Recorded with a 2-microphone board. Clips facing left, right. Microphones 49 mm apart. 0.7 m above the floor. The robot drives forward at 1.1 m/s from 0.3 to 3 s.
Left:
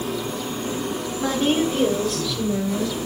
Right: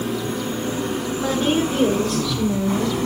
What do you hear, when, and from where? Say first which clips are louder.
0.0 s an engine running: right 2 dB; 30° right (ahead or behind), 5 m; by 3.1 s 60° right (ahead or behind), 3 m
1.2 s a woman speaking: even; 5° right (ahead or behind), 2.5 m; by 3.1 s centre (ahead or behind), 4.5 m